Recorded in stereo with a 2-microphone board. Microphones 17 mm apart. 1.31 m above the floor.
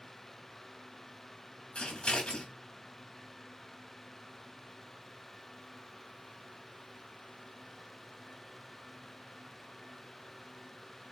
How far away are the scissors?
About 3.5 m.